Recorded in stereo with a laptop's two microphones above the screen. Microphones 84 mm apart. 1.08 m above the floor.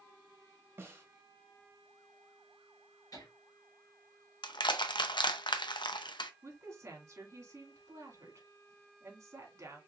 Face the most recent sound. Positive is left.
turn(degrees=-45)  # may be behind; listen again after turning